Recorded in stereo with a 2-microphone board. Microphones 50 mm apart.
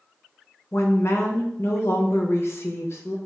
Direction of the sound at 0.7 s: 55° left (ahead or behind).